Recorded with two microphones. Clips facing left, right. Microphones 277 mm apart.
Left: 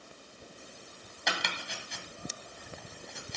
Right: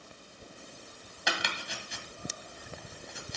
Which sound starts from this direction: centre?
Chopping, at 1.3 s.